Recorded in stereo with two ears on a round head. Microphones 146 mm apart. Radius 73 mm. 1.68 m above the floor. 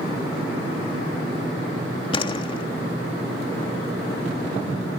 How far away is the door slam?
About 3 m.